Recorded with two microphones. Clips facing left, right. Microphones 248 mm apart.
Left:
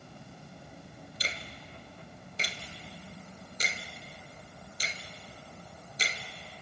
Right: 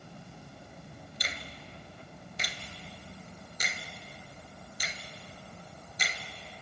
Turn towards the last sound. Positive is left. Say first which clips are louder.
# left 1 dB
turn(degrees=35)  # may be behind; listen again after turning